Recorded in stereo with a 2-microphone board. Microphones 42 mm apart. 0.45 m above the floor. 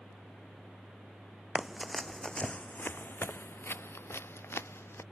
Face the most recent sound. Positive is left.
turn(degrees=80)